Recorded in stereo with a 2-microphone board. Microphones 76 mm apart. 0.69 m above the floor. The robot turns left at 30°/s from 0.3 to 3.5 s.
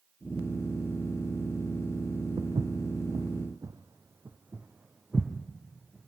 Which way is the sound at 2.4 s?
60° right (ahead or behind).